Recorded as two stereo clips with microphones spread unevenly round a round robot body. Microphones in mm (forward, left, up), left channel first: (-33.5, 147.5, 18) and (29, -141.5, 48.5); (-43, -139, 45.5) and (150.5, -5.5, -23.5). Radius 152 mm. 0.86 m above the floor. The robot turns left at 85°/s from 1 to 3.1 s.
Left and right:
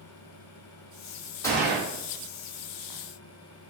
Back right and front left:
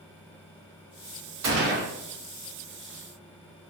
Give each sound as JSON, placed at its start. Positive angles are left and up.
{"t": 1.4, "sound": "a gunshot", "azimuth_deg": 20, "distance_m": 1.3}